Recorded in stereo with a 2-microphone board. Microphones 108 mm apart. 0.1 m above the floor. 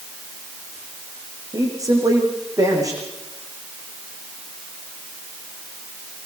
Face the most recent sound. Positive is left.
turn(degrees=-30)  # may be behind; listen again after turning